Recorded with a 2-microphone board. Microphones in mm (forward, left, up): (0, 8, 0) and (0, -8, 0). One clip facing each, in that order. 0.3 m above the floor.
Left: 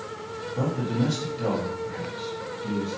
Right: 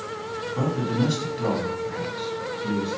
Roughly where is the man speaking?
Right.